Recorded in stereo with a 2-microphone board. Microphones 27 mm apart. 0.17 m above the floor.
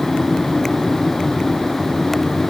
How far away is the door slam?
I don't hear a door slam.